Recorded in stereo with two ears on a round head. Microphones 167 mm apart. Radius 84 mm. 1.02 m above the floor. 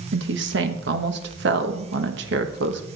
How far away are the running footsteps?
I don't hear running footsteps.